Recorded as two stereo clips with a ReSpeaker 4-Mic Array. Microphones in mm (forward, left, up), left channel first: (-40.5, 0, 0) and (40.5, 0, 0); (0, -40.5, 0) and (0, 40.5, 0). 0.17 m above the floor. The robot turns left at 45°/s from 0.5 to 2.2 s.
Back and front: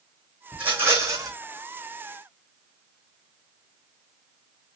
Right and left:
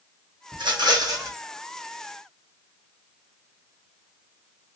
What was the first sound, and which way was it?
A rattle, 75° left.